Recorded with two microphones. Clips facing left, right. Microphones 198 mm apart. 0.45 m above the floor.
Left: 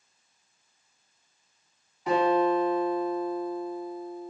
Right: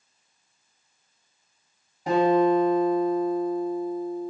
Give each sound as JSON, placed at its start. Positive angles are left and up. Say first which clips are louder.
{"t": 2.1, "sound": "a guitar", "louder": "right 4 dB", "side_deg": -45, "distance_m": 1.1}